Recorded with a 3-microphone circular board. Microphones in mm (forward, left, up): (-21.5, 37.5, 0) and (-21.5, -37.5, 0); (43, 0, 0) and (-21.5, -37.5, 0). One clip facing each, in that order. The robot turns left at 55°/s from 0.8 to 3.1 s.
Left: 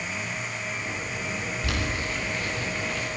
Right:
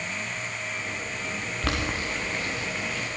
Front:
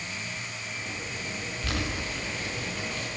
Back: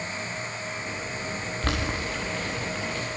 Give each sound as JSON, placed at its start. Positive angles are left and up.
{"t": 1.6, "sound": "boiling", "azimuth_deg": -105, "distance_m": 9.5}